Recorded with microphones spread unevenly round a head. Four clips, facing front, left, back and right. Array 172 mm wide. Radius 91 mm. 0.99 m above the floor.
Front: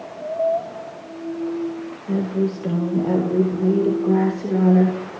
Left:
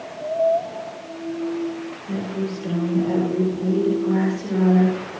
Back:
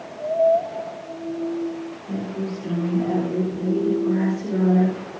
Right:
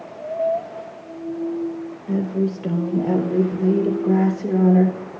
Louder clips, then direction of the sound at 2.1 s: Right 5 dB, front 8 dB; 50° right.